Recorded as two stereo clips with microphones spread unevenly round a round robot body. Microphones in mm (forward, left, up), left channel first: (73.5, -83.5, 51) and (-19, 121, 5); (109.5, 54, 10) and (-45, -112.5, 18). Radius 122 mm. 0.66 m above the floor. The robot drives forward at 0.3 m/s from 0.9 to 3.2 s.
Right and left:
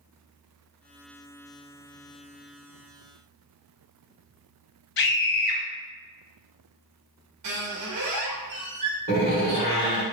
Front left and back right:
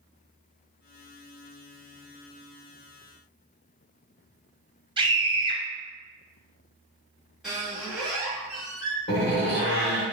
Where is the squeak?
140° left, 0.7 m.